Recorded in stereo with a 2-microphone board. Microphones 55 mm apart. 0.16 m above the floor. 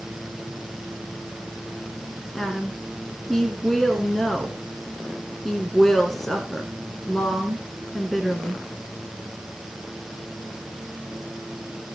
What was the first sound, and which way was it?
A woman speaking, 5° left (ahead or behind).